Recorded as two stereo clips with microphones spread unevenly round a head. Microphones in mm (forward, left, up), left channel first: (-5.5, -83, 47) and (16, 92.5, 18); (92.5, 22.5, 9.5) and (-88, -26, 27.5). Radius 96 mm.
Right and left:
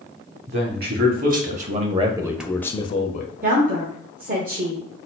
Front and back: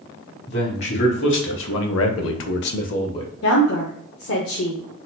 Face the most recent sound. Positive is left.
turn(degrees=35)